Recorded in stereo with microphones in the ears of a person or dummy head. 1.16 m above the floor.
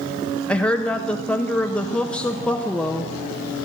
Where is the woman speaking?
10° left (ahead or behind), 1.1 m.